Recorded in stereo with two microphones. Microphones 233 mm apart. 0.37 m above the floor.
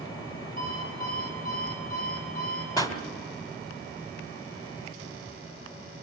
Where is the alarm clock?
35° left (ahead or behind), 8 m.